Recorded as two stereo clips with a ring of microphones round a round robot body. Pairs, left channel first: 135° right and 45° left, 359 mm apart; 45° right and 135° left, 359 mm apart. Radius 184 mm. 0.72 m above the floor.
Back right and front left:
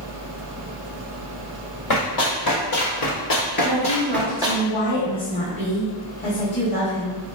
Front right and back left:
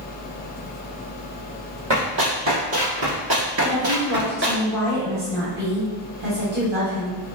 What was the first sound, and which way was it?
Running footsteps, 170° right.